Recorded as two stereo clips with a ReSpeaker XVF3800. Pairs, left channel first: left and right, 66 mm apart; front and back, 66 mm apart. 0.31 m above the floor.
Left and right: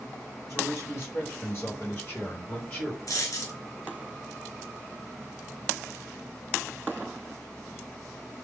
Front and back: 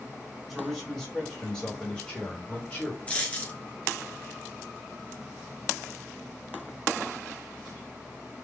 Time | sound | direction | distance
0.5 | a man speaking | 90° left | 2.0 m
3.1 | a dropped coin | 65° left | 1.4 m